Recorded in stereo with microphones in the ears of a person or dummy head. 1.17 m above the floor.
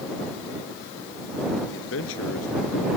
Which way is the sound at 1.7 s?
75° left (ahead or behind).